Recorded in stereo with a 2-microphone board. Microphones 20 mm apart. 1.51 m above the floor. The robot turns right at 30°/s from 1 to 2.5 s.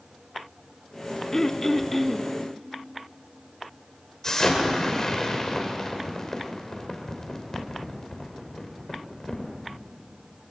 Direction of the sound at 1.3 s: 25° left (ahead or behind).